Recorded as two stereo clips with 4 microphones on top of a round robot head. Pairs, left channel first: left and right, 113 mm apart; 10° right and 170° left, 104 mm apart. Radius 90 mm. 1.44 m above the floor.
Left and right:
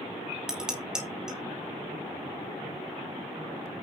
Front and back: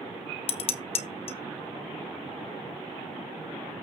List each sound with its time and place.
0.5 s dishes clattering: 5° right, 0.6 m